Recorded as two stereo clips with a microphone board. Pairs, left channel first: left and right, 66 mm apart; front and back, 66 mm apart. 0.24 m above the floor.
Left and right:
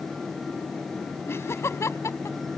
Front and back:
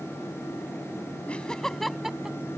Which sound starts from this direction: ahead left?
Laughter, at 1.3 s.